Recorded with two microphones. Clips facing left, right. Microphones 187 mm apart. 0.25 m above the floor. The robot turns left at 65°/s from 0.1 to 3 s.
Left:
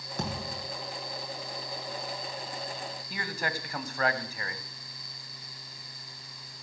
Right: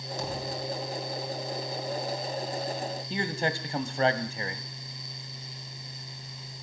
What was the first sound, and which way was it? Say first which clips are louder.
A thud: right 2 dB; 125° left.